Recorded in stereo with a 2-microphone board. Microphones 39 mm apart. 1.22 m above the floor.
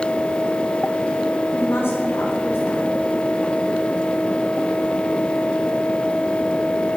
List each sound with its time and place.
1.5 s a woman speaking: 75° left (ahead or behind), 3.5 m